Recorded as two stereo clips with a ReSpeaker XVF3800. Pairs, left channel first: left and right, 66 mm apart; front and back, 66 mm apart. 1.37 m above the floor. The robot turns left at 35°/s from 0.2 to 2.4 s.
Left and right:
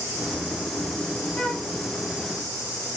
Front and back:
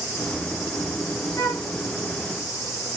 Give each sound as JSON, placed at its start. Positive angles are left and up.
{"t": 1.4, "sound": "a flute", "azimuth_deg": 15, "distance_m": 1.4}